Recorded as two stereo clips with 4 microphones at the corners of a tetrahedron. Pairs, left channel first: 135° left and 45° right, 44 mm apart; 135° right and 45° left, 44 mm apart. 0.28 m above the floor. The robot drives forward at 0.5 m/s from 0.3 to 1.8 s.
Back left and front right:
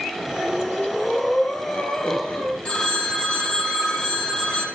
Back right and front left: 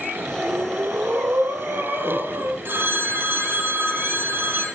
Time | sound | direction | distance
0.4 | breathing | 65° left | 3 m
2.6 | a phone ringing | 80° left | 5.5 m